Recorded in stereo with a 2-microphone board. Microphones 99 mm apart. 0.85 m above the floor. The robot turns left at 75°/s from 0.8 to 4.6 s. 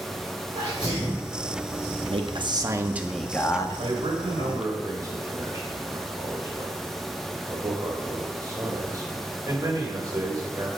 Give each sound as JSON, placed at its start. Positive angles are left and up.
{"t": 0.6, "sound": "a sneeze", "azimuth_deg": -125, "distance_m": 3.0}
{"t": 2.1, "sound": "a man speaking", "azimuth_deg": -100, "distance_m": 1.0}
{"t": 3.8, "sound": "a man speaking", "side_deg": -70, "distance_m": 1.8}